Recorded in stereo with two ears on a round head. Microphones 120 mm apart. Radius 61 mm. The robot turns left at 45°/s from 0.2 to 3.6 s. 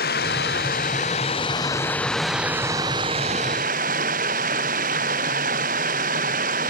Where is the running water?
90° left; by 6.7 s 60° right.